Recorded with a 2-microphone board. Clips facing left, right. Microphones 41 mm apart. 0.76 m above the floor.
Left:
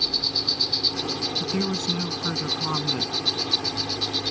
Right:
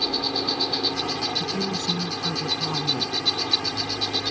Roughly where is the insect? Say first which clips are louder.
Right 2 dB; right.